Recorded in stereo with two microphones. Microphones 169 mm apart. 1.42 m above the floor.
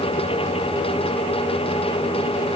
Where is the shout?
No shout in this recording.